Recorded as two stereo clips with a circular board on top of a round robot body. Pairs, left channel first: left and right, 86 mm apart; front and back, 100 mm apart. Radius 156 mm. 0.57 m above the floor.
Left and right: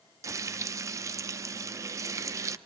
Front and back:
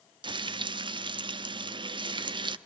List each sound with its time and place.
0.2 s frying: 145° right, 0.6 m